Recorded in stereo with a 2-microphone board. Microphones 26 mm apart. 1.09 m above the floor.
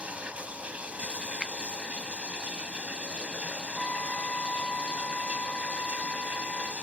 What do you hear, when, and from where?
0.0 s running water: 60° right (ahead or behind)
1.4 s a finger snap: 25° left (ahead or behind)
3.8 s a trumpet: 50° left (ahead or behind)